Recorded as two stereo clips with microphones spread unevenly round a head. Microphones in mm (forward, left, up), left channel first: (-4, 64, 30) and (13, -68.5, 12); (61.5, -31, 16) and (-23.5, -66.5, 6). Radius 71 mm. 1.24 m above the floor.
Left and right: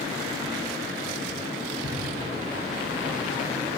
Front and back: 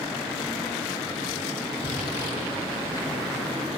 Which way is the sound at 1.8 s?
60° left.